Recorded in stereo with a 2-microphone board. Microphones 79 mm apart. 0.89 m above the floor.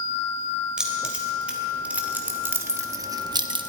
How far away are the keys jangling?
About 2.5 m.